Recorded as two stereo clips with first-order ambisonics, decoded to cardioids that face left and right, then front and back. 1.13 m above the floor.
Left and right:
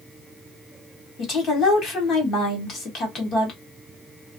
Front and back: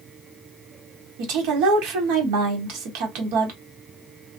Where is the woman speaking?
155° left, 1.4 m.